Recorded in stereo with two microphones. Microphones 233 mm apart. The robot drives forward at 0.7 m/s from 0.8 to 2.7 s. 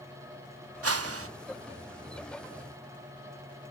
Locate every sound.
0.8 s a whoosh: 75° right (ahead or behind), 0.5 m; by 1.3 s 70° right (ahead or behind), 0.5 m